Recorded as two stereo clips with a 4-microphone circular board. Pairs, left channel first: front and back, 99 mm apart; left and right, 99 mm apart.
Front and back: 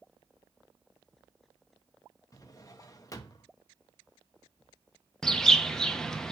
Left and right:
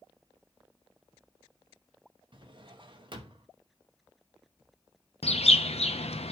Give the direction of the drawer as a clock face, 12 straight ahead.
2 o'clock.